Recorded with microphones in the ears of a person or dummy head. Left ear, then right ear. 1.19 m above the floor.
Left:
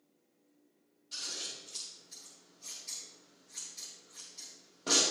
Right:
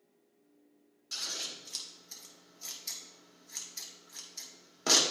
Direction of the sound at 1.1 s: 55° right (ahead or behind).